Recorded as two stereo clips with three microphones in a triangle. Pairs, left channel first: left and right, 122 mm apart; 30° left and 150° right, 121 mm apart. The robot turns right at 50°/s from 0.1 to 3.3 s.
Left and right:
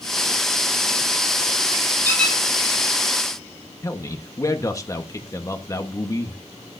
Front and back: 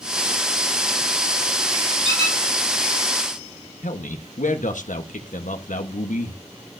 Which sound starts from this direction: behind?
A squeak, at 2.0 s.